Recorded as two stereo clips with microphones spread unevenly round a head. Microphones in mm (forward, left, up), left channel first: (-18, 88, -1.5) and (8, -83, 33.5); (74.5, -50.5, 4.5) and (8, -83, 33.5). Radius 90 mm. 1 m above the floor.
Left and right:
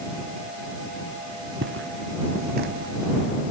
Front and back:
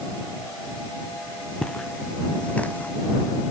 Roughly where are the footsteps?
Ahead right.